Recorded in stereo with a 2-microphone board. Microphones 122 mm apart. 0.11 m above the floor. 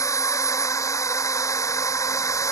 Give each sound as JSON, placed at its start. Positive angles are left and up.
{"t": 0.0, "sound": "a drone", "side_deg": 25}